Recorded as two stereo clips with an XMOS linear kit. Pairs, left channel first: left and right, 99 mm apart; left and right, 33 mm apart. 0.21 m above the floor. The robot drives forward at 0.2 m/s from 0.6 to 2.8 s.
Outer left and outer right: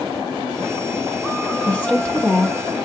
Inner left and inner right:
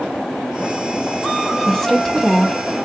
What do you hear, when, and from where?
1.7 s a woman speaking: 15° left (ahead or behind), 1.1 m